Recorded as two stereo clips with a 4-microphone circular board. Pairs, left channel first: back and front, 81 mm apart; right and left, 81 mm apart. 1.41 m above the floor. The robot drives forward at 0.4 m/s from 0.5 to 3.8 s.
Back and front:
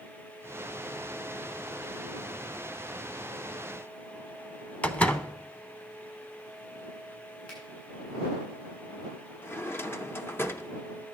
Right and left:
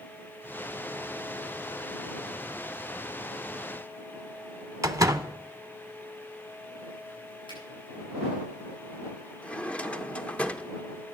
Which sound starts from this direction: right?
A finger snap, at 7.5 s.